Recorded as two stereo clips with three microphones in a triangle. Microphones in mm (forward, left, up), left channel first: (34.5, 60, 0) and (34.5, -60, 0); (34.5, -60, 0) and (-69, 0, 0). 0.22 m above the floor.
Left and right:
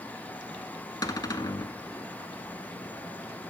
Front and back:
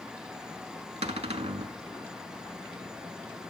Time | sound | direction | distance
1.0 | a cupboard door | 140° left | 0.6 m